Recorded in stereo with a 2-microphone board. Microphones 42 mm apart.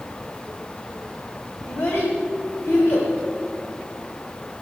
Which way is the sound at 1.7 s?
85° left.